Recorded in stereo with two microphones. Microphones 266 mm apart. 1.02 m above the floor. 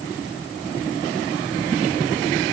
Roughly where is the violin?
No violin in this recording.